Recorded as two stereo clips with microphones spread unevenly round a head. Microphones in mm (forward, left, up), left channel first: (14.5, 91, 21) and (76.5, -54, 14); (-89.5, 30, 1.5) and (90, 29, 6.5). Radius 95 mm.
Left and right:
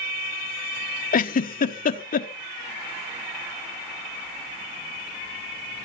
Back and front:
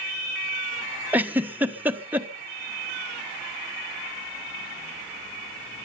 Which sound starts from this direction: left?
A giggle, at 1.1 s.